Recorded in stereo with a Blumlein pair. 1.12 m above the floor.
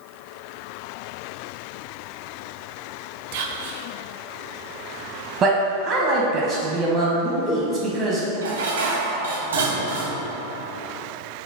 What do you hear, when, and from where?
3.3 s whispering: 50° right, 0.5 m
5.4 s a man speaking: 25° right, 0.7 m
8.4 s dishes clattering: 65° right, 0.7 m